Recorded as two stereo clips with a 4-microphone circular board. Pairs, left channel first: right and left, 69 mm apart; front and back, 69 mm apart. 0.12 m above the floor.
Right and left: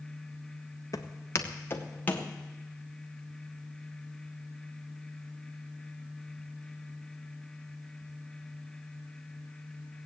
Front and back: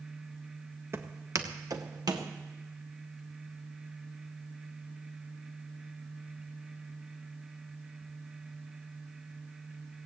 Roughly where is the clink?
I don't hear a clink.